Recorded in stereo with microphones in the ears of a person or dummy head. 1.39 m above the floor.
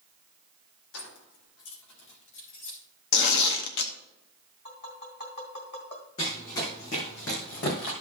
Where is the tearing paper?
70° left (ahead or behind), 1.0 m.